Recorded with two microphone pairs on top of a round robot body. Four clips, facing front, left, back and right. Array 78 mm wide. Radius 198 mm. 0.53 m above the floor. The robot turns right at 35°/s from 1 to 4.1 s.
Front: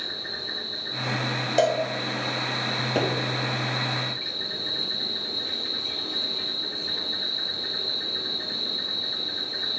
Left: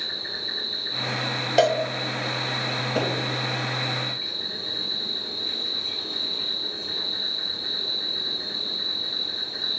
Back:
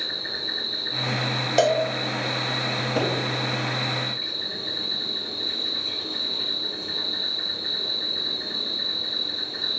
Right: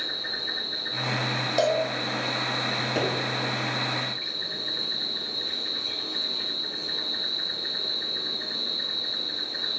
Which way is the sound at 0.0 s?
100° right.